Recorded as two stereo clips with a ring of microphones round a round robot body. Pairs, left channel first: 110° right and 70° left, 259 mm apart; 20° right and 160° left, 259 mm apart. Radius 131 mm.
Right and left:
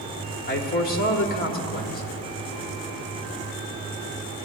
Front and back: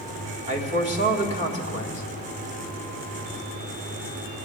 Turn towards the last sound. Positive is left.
turn(degrees=-150)